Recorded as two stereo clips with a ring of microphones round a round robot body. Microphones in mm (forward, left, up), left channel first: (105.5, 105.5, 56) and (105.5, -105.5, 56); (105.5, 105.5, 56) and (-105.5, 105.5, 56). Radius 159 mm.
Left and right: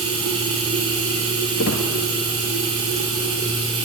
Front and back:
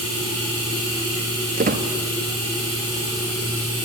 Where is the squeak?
130° left, 1.3 m.